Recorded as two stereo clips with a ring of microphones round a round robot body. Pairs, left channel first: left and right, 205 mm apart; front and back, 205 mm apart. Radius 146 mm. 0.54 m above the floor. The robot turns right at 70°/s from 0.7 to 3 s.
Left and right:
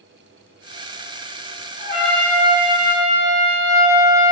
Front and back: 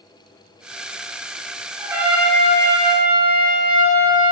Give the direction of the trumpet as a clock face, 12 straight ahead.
4 o'clock.